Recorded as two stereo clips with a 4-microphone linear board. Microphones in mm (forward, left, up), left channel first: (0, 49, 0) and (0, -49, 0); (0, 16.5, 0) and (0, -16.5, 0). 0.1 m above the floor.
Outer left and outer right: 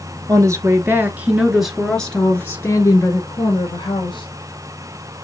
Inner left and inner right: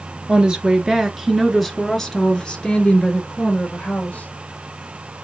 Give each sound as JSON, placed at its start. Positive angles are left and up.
{"t": 0.3, "sound": "a woman speaking", "side_deg": -35, "distance_m": 1.3}